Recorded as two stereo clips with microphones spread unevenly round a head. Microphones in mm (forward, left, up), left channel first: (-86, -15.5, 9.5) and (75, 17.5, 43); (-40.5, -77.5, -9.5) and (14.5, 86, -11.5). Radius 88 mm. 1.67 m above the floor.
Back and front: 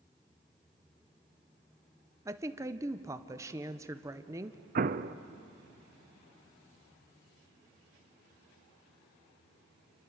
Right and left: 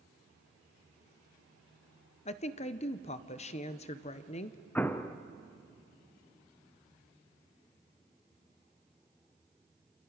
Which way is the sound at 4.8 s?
30° right.